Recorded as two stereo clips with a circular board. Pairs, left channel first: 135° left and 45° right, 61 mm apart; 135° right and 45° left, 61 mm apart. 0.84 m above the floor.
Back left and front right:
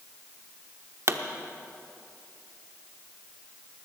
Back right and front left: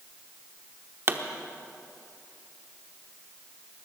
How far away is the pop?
About 0.9 m.